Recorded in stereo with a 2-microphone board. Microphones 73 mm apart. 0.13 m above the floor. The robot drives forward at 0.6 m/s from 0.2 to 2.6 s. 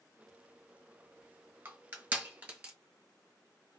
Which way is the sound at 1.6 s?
25° right (ahead or behind).